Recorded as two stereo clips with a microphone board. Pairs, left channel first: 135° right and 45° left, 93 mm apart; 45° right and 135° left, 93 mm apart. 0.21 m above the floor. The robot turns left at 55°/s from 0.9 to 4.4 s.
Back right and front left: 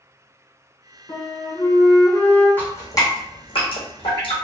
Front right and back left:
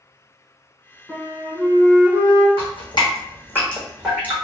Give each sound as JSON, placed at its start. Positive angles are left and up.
{"t": 1.1, "sound": "a flute", "azimuth_deg": -125, "distance_m": 1.1}
{"t": 2.6, "sound": "dripping", "azimuth_deg": -60, "distance_m": 1.7}